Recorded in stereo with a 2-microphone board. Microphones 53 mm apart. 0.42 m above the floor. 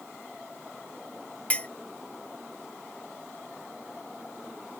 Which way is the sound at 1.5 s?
25° left (ahead or behind).